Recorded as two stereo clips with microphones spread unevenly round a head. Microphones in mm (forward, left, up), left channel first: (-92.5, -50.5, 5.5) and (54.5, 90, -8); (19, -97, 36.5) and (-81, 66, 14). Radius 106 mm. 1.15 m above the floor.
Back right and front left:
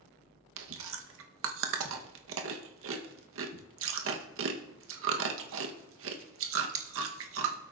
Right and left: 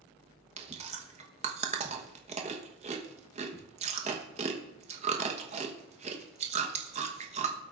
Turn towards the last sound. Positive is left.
turn(degrees=65)